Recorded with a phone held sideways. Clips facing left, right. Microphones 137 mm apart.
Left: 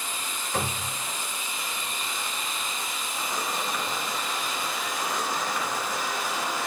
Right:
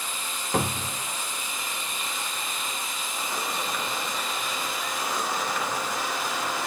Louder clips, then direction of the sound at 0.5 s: Right 4 dB; 55° right (ahead or behind).